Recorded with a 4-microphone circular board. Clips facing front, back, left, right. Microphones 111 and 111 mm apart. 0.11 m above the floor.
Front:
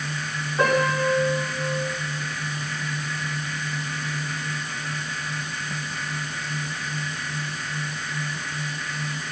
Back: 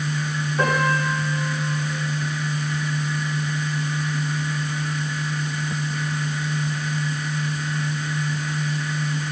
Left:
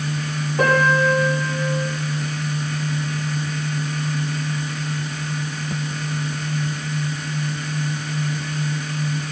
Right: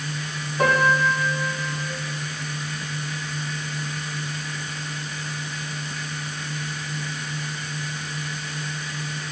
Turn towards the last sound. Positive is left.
turn(degrees=90)